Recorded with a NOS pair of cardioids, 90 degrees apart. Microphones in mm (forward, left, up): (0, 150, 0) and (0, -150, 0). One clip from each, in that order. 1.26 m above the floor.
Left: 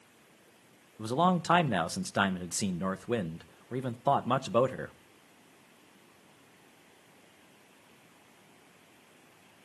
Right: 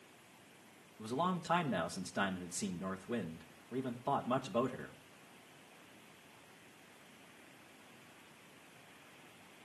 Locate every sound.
1.0 s a man speaking: 55° left, 1.0 m